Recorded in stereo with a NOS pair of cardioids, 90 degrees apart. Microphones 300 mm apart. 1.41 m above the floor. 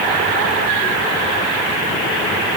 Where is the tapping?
I don't hear tapping.